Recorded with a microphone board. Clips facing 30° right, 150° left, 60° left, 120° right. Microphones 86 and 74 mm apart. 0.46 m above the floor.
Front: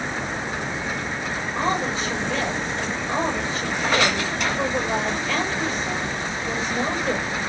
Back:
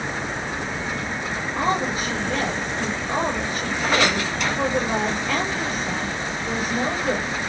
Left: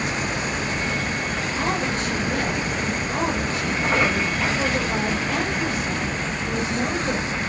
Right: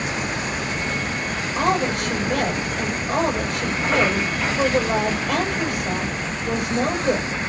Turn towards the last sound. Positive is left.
turn(degrees=-130)